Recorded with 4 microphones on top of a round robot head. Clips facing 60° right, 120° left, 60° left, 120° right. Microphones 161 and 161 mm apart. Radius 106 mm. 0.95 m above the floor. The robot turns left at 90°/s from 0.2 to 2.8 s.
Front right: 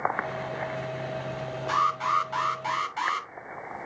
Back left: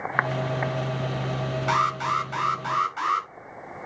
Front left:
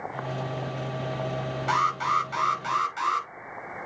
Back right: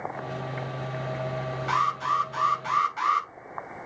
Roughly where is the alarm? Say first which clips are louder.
Back left 2 dB, front left 2 dB; left.